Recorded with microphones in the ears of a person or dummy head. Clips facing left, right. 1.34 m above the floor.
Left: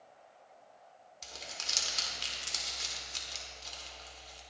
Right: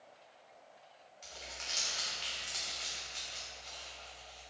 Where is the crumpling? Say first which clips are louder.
Left 1 dB; 60° left (ahead or behind), 2 m.